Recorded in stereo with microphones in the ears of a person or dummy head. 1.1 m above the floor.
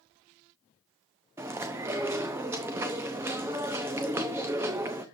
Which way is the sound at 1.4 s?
10° right (ahead or behind).